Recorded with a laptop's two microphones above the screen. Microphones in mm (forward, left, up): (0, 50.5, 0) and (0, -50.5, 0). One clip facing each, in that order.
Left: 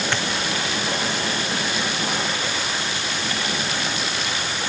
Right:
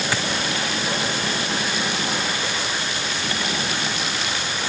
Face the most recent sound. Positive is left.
turn(degrees=-5)  # may be behind; listen again after turning